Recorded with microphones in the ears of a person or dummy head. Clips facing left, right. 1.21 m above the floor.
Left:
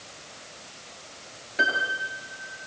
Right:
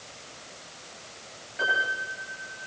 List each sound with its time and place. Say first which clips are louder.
1.6 s a piano: left 2 dB; 70° left (ahead or behind), 9 m